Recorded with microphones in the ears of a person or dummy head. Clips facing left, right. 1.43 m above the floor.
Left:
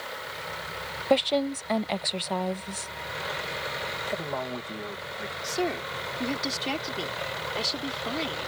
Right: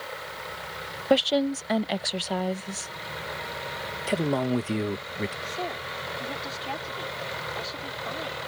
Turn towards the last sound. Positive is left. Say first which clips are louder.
# left 5 dB
turn(degrees=40)  # may be behind; listen again after turning